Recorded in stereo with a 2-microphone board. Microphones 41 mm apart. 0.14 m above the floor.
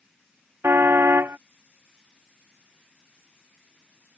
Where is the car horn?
80° right.